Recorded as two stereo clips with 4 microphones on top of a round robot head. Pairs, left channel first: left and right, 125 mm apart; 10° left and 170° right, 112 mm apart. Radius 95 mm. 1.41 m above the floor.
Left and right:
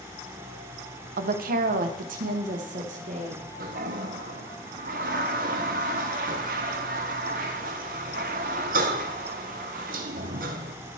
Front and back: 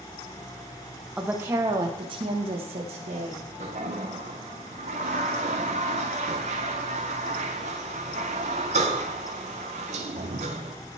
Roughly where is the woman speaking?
Right.